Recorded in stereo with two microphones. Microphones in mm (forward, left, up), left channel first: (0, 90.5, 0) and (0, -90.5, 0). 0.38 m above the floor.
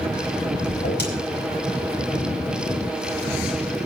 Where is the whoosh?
70° left (ahead or behind), 4 m.